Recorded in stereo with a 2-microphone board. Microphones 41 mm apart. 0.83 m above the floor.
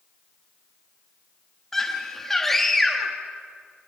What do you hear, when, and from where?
1.7 s a scream: 10° left (ahead or behind), 1.3 m